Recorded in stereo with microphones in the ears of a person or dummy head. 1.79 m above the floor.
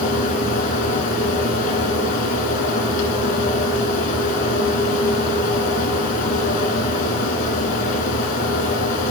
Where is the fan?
50° left (ahead or behind), 1.6 m.